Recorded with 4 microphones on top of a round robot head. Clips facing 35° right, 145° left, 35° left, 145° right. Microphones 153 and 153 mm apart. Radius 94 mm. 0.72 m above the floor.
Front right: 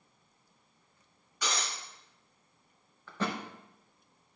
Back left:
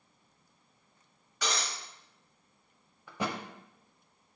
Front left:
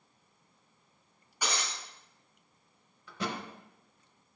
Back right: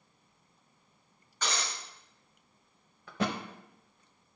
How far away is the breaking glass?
About 2.5 m.